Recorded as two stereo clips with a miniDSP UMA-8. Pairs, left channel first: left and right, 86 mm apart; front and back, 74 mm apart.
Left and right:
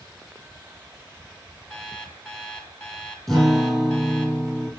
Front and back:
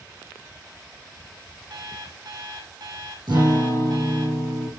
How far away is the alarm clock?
About 2.0 m.